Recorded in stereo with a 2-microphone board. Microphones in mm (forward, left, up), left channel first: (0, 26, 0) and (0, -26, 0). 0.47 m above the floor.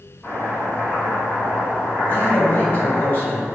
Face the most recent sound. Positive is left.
turn(degrees=35)  # may be behind; listen again after turning